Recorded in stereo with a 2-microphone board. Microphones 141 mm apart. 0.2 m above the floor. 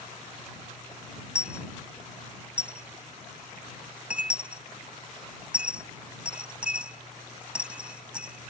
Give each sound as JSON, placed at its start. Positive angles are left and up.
{"t": 1.4, "sound": "a dropped coin", "side_deg": -10}